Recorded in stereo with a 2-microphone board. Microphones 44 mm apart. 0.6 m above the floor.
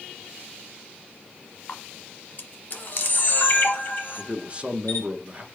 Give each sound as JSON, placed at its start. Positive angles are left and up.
{"t": 1.7, "sound": "a camera shutter", "side_deg": 45, "distance_m": 1.1}
{"t": 4.2, "sound": "a man speaking", "side_deg": -25, "distance_m": 0.6}